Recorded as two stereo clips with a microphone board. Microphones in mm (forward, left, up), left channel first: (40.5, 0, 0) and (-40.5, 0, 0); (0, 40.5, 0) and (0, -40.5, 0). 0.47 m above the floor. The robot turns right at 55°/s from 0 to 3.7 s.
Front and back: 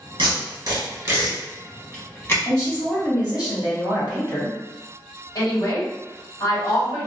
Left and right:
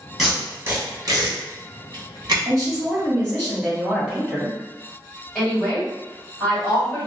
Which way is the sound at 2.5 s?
75° right.